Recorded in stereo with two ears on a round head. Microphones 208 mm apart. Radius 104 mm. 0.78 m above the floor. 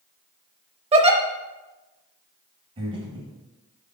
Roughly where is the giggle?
Right.